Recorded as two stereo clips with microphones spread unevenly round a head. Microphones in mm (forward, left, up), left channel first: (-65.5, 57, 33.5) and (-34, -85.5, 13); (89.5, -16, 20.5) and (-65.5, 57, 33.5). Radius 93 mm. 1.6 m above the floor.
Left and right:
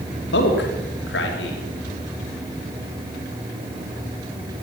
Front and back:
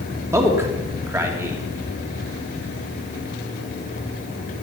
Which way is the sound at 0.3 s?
80° left.